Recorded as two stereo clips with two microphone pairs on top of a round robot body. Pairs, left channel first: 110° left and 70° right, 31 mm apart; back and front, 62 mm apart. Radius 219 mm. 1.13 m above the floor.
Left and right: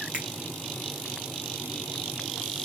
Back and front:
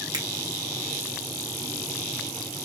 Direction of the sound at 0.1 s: 15° right.